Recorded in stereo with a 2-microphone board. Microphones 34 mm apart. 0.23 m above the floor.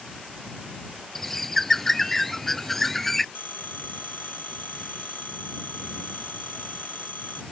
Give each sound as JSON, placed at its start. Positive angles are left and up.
{"t": 1.1, "sound": "a bird", "side_deg": 10}
{"t": 3.4, "sound": "a phone ringing", "side_deg": 80}